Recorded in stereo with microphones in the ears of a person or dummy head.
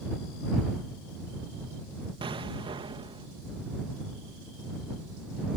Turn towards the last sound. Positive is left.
turn(degrees=-25)  # may be behind; listen again after turning